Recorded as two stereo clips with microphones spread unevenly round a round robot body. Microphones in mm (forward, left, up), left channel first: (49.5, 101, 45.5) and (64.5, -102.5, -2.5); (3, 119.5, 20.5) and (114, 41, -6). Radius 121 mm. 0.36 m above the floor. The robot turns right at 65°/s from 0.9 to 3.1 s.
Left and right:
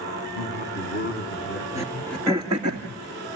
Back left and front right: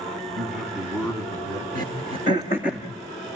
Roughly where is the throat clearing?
Behind left.